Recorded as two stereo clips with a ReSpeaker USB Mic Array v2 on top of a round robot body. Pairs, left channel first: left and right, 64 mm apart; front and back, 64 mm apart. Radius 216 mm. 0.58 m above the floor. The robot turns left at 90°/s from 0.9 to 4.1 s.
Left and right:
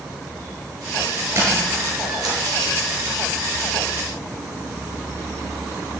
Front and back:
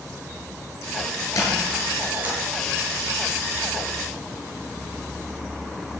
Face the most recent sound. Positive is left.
turn(degrees=75)